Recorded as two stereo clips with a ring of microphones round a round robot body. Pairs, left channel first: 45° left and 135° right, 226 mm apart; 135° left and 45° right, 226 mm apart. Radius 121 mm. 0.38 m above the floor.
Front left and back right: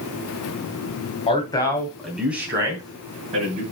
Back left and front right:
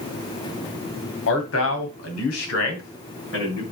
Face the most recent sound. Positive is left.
turn(degrees=165)